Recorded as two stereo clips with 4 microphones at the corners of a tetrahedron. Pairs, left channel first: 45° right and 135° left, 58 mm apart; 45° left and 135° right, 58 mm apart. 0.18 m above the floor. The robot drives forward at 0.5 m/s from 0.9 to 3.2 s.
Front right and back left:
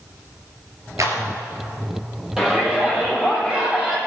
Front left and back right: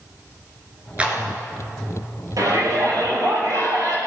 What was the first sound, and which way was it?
A clap, 155° left.